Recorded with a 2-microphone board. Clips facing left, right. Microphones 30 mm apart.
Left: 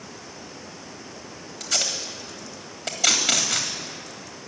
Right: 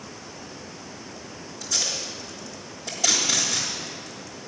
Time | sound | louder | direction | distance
1.6 | tape being pulled | left 2 dB | 70° left (ahead or behind) | 1.8 m